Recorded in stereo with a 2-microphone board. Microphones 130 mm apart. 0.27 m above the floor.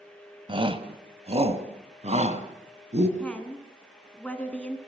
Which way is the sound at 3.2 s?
10° left (ahead or behind).